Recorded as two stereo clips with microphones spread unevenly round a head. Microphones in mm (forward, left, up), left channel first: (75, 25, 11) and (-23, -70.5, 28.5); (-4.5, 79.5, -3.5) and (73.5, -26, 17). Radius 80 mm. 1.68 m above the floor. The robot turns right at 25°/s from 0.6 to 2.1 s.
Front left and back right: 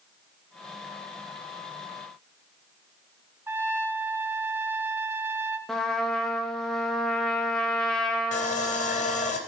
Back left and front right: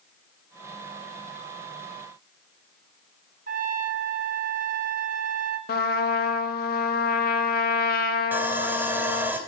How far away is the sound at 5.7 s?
About 1.2 m.